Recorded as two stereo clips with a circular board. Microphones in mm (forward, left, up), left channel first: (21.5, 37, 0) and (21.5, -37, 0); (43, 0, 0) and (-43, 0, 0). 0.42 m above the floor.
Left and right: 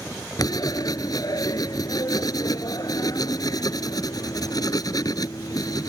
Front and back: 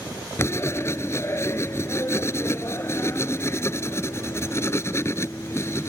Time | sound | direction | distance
0.4 | writing | 60° left | ?